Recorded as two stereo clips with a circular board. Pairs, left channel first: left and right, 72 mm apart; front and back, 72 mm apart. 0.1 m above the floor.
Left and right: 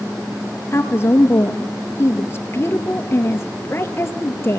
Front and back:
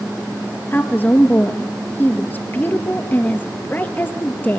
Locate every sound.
0.7 s a woman speaking: 50° left, 2.5 m